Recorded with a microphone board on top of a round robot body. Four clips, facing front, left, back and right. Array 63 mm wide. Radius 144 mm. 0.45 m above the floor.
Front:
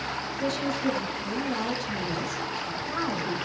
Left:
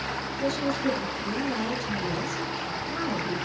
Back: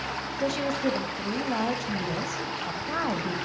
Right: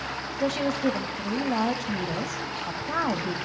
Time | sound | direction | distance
0.4 | a woman speaking | 120° right | 3.5 m